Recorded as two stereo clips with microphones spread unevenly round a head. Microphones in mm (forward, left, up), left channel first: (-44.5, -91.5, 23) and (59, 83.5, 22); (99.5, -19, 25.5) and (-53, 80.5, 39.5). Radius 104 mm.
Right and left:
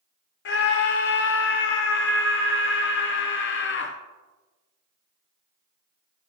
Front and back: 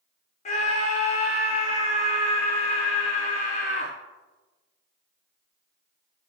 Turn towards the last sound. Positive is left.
turn(degrees=-90)